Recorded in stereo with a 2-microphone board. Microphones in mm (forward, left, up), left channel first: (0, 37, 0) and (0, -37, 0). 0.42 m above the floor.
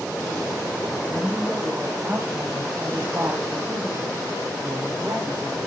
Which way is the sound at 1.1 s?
5° right (ahead or behind).